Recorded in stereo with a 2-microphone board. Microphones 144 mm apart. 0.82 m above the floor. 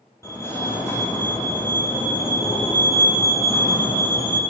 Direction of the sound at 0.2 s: 20° left (ahead or behind).